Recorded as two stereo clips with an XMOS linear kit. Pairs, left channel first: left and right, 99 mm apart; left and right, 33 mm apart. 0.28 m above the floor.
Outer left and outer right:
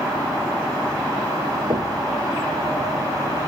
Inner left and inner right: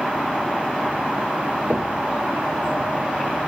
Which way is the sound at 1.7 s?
65° right (ahead or behind).